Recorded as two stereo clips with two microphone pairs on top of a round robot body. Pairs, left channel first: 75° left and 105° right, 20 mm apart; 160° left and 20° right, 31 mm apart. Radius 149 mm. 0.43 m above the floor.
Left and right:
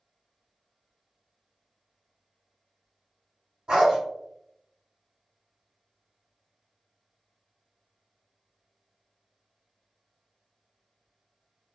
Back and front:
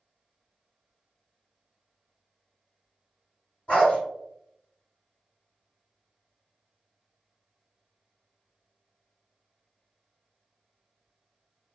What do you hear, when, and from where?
3.7 s a dog barking: 155° right, 1.5 m